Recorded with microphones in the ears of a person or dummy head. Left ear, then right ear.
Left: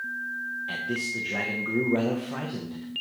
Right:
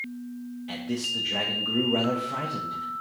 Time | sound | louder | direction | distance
0.7 | a man speaking | right 3 dB | 5° left (ahead or behind) | 0.8 m